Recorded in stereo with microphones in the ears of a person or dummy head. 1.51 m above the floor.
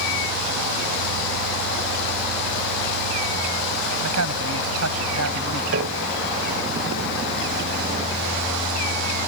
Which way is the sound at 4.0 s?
85° right.